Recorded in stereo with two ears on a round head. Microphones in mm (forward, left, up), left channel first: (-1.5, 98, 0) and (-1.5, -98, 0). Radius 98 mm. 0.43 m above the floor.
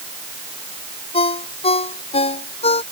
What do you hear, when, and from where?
1.1 s a ringtone: 25° left (ahead or behind)